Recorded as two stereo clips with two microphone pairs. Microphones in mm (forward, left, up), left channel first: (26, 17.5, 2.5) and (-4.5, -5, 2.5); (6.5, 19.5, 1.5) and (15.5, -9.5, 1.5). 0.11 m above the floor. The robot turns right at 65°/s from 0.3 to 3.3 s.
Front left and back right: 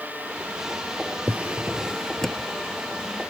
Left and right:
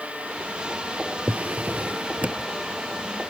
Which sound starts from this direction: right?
A drawer, at 1.3 s.